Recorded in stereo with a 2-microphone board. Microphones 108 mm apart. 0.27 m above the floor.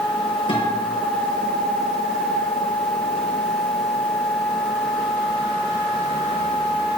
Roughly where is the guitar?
Left.